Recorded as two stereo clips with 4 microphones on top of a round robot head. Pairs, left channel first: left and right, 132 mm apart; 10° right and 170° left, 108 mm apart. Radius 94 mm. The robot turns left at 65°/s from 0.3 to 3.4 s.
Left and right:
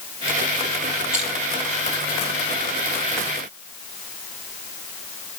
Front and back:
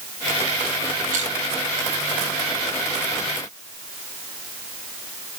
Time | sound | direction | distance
1.1 | crushing | 175° right | 7.5 m